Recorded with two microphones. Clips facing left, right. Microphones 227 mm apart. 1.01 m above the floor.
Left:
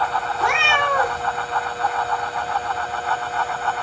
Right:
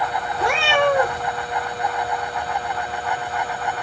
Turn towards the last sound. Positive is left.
turn(degrees=-30)  # may be behind; listen again after turning